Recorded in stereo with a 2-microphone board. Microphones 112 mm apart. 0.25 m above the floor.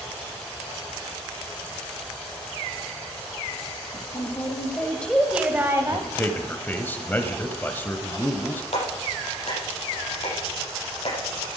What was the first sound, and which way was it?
A woman speaking, 45° left (ahead or behind).